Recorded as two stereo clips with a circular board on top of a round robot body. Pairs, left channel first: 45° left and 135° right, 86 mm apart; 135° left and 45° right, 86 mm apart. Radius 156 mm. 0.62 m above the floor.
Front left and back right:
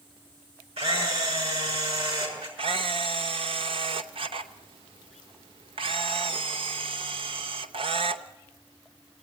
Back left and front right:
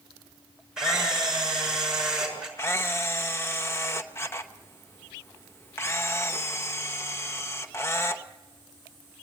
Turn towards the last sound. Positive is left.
turn(degrees=-160)